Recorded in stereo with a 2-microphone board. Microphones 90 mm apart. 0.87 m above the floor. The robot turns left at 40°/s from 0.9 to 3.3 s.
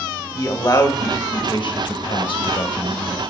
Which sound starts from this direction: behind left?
A man speaking, at 0.3 s.